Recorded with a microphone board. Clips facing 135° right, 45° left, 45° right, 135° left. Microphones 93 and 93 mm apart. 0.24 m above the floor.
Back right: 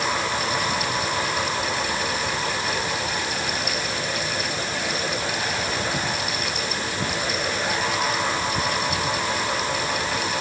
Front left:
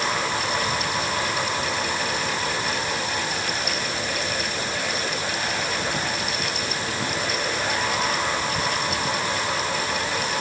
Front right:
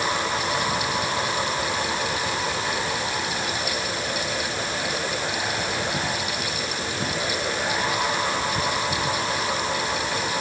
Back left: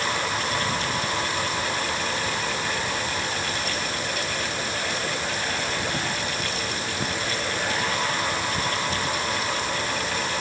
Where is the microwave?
I don't hear a microwave.